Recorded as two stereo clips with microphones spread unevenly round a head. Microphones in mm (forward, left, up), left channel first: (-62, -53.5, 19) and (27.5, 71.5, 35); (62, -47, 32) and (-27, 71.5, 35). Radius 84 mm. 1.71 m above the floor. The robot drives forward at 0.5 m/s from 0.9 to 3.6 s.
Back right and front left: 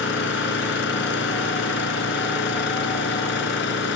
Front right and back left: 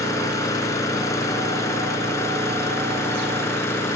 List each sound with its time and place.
0.0 s an engine running: 125° right; by 4.0 s 130° right